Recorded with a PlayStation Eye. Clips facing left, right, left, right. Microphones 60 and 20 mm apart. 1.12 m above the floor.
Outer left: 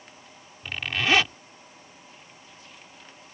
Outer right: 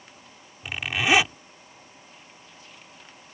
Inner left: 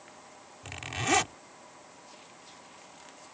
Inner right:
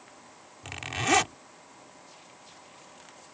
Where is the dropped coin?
No dropped coin in this recording.